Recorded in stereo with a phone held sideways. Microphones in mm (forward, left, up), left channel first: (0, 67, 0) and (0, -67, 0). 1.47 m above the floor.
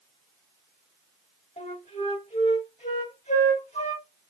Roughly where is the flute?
Left.